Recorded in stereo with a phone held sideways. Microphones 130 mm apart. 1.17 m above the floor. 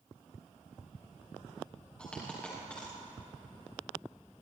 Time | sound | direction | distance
2.0 | a dropped coin | 10° left (ahead or behind) | 9 m